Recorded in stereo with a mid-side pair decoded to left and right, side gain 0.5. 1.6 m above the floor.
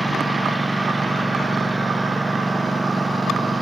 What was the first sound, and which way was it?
A lawn mower, 15° right.